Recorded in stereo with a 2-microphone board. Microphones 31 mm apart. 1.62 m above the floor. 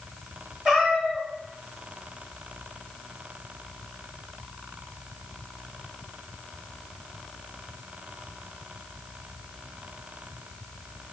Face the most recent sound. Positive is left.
turn(degrees=-10)  # may be behind; listen again after turning